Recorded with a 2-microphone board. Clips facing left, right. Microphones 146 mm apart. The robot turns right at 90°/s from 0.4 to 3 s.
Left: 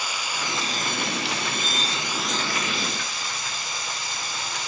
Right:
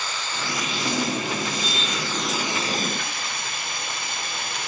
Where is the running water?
10° left, 1.0 m; by 4.7 s 115° right, 1.0 m.